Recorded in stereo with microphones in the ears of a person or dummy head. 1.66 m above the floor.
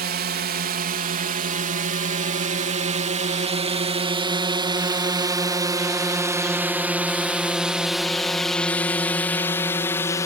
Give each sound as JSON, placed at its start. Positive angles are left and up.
{"t": 0.0, "sound": "a drone", "side_deg": -45}